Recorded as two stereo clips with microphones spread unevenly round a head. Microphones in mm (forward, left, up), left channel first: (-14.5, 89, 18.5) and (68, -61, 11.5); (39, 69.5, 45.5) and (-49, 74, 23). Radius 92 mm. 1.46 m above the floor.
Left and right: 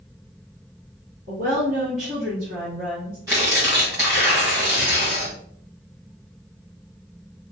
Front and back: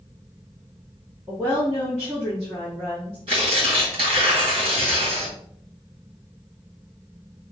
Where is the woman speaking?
110° right, 1.4 m; by 3.2 s 125° right, 2.5 m.